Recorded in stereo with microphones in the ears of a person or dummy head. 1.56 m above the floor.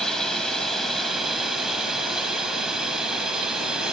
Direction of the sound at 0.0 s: Centre (ahead or behind).